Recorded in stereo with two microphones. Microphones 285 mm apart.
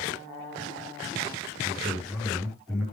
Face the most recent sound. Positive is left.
turn(degrees=0)  # may be behind; listen again after turning